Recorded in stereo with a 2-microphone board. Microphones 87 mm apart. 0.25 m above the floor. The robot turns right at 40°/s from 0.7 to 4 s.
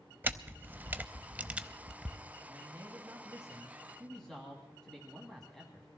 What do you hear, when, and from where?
0.2 s a camera shutter: 20° right (ahead or behind), 0.6 m; by 2.2 s 5° right (ahead or behind), 0.6 m
2.5 s a man speaking: 55° right, 2.5 m; by 5.9 s 10° left, 2.5 m